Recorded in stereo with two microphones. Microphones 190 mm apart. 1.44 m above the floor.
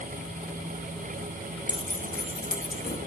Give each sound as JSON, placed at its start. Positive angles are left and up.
{"t": 1.7, "sound": "keys jangling", "side_deg": 25, "distance_m": 0.6}